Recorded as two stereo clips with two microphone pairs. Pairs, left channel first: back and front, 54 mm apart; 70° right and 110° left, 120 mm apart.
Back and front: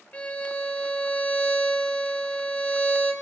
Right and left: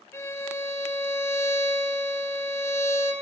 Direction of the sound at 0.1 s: 125° right.